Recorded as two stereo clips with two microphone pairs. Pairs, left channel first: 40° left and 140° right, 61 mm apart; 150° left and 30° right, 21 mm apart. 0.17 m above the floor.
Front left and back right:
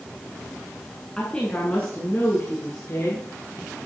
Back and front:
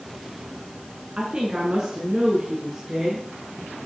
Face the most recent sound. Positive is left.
turn(degrees=15)